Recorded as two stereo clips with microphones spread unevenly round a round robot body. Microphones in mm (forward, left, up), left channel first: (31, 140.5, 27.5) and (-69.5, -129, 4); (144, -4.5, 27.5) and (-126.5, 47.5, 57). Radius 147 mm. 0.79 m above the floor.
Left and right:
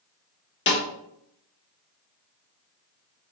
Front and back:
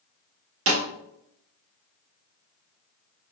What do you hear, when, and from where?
0.7 s a snare drum: 125° left, 0.9 m